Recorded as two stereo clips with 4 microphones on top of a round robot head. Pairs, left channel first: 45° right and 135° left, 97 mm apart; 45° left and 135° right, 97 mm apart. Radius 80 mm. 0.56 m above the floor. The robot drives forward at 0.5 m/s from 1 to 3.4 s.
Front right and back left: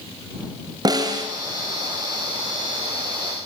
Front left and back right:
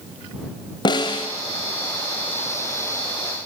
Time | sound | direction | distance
0.8 | a snare drum | 90° left | 3.5 m